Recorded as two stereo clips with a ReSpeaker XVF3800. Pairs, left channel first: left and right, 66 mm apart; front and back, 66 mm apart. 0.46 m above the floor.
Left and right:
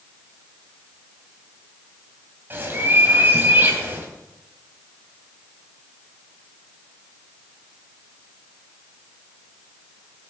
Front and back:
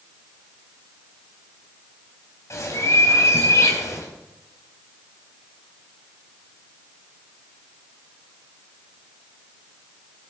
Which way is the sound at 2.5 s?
35° right.